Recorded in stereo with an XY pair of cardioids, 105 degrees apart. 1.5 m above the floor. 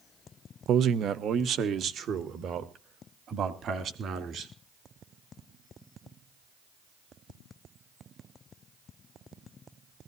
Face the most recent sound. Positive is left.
turn(degrees=-60)